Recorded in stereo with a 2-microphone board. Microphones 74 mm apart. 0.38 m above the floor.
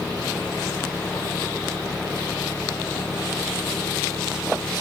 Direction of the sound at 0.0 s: 15° left (ahead or behind).